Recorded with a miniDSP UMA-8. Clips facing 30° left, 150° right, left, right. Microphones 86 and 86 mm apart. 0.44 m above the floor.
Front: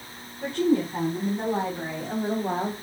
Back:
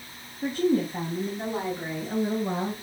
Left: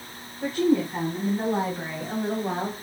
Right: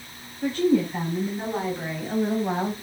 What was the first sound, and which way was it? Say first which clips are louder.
A woman speaking: front 1 dB, right 1 dB; 35° left.